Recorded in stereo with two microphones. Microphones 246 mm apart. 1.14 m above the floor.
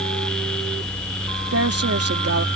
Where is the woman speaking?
75° right (ahead or behind).